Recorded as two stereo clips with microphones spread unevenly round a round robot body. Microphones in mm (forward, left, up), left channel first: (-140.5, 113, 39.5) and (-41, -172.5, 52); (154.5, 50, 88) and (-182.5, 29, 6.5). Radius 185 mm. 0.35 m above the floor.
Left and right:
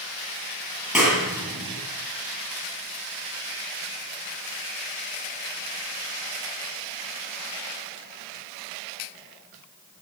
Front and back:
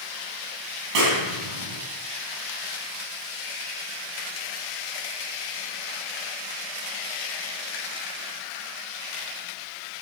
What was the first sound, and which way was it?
A clap, 160° right.